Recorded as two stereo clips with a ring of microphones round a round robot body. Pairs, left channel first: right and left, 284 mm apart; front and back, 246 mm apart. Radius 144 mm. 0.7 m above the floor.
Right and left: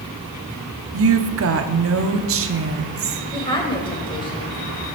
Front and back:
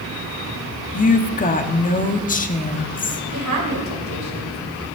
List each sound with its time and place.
0.9 s a woman speaking: 55° left, 1.2 m
3.3 s a woman speaking: 165° right, 3 m